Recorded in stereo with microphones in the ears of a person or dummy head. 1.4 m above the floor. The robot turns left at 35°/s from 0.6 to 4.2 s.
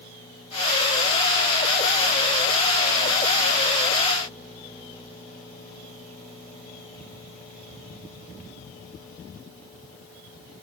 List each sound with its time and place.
Only background noise.